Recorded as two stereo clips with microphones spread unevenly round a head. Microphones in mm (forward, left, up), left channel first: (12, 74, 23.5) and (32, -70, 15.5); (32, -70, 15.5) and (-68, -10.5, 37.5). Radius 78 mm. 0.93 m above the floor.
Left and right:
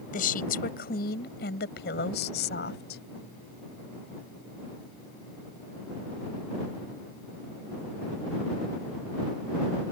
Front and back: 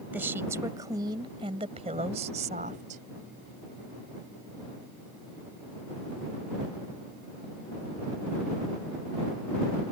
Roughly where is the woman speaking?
Left.